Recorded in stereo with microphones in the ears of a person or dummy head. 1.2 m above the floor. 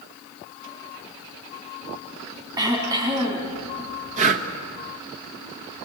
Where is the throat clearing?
20° right (ahead or behind), 3 m.